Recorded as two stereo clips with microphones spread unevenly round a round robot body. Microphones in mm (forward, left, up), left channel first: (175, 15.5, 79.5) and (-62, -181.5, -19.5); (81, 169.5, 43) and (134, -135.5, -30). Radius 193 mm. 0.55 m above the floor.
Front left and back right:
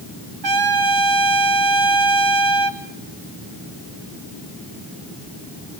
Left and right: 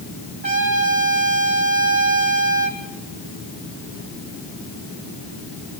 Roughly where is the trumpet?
Behind right.